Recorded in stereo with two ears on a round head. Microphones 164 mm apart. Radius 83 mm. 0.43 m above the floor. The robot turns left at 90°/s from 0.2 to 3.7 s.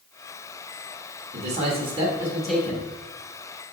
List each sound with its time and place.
1.3 s a man speaking: 80° right, 0.9 m; by 2.9 s 140° left, 0.9 m